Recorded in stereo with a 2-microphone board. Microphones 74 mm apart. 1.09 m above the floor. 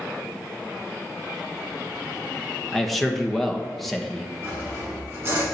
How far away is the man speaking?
About 1.0 m.